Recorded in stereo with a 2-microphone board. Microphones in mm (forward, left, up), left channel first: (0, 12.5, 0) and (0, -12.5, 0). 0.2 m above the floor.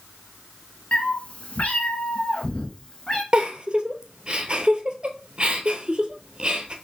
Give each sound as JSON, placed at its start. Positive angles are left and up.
{"t": 0.9, "sound": "a cat meowing", "side_deg": 50, "distance_m": 0.9}
{"t": 3.3, "sound": "a giggle", "side_deg": -40, "distance_m": 0.7}